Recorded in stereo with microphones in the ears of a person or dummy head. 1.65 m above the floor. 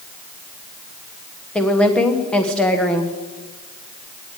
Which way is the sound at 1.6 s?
10° left (ahead or behind).